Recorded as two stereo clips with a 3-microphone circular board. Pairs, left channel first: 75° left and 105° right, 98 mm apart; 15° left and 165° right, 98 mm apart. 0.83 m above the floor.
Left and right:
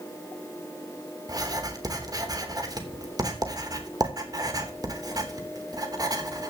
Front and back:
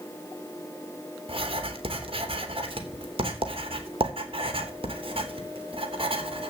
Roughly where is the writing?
Behind right.